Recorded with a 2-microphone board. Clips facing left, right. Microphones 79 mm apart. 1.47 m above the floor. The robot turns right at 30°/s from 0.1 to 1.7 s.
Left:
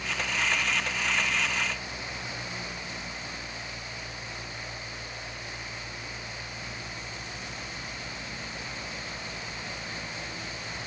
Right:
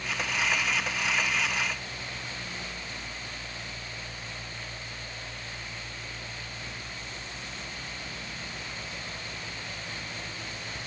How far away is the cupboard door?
I don't hear a cupboard door.